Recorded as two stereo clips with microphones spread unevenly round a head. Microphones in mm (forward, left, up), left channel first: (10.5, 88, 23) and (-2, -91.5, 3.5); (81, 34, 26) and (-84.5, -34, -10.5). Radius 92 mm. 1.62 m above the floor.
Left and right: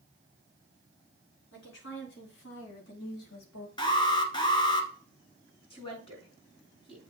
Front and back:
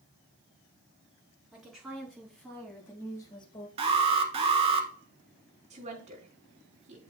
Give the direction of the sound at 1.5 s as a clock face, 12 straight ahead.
8 o'clock.